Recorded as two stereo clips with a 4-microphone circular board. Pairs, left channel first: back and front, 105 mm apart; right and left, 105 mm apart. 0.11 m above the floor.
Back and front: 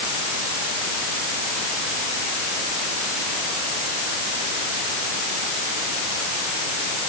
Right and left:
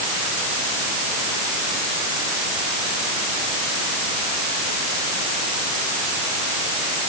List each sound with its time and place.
Only background noise.